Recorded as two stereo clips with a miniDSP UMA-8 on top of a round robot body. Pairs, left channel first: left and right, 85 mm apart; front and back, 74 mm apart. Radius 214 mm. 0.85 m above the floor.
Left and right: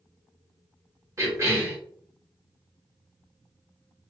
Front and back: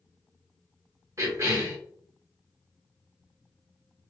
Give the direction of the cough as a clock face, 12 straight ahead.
5 o'clock.